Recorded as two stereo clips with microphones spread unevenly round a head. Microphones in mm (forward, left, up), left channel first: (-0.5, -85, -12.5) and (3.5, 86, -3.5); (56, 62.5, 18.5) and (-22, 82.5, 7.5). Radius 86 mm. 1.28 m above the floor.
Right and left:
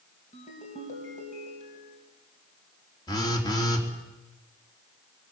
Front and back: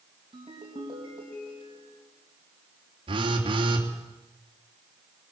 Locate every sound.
0.3 s a ringtone: 145° right, 3.5 m
3.1 s a phone buzzing: 160° right, 3 m